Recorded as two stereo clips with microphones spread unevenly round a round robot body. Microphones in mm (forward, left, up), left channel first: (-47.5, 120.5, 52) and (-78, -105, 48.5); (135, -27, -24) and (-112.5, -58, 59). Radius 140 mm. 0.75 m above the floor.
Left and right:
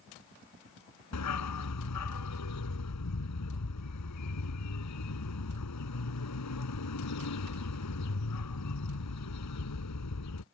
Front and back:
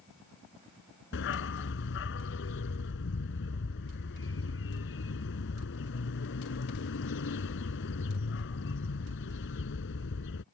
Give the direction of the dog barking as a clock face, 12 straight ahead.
10 o'clock.